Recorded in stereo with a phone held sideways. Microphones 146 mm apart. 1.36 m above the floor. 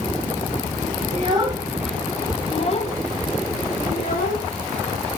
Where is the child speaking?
40° right (ahead or behind), 0.6 m; by 4.5 s 70° left (ahead or behind), 1.5 m.